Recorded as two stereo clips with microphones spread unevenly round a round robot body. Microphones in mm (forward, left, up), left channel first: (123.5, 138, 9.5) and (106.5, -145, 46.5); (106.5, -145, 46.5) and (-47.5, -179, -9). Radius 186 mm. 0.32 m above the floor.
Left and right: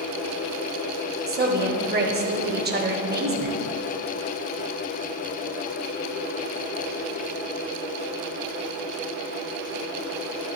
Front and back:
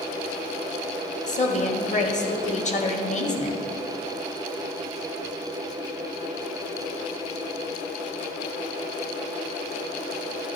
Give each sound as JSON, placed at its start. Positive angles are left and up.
{"t": 1.3, "sound": "a woman speaking", "azimuth_deg": -40, "distance_m": 1.5}